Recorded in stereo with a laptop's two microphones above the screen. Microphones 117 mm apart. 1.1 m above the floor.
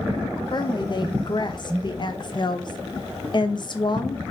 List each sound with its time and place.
0.5 s a woman speaking: 40° left (ahead or behind), 0.7 m